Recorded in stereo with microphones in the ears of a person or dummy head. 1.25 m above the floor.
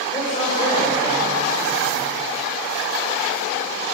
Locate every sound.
0.1 s a man speaking: 25° left (ahead or behind), 7 m